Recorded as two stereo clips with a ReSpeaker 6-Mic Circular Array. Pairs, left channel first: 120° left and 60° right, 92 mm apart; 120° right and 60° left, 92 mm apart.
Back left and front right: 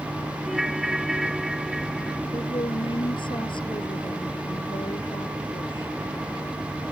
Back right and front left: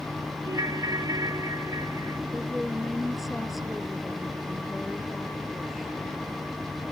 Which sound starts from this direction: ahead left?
A ringtone, at 0.5 s.